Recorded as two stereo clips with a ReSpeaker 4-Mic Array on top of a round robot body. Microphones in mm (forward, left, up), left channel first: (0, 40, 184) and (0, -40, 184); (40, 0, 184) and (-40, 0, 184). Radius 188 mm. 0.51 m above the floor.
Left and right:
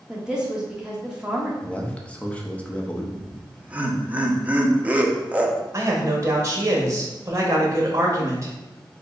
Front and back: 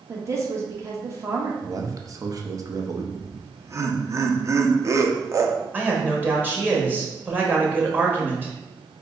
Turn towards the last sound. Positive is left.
turn(degrees=-120)